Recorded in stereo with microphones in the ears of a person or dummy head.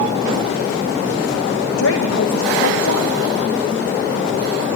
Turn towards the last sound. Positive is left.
turn(degrees=85)